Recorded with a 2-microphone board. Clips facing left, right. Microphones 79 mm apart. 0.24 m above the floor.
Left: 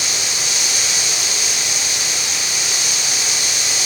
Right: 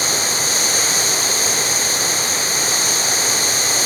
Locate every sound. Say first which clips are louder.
0.0 s running water: right 4 dB; 40° right (ahead or behind), 1.7 m